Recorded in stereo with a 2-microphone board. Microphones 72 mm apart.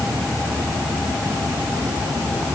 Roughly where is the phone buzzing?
I don't hear a phone buzzing.